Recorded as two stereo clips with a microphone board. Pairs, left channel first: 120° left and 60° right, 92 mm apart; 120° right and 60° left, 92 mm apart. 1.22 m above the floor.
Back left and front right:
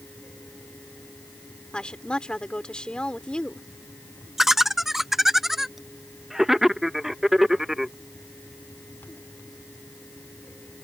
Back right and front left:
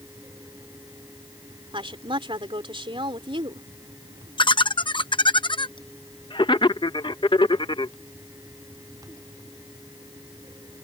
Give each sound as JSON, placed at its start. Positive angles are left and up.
{"t": 1.7, "sound": "a woman speaking", "azimuth_deg": 40}
{"t": 4.4, "sound": "laughter", "azimuth_deg": -145}